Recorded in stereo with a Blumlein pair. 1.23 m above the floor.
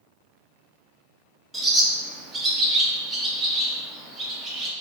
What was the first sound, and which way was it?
A bird, 10° right.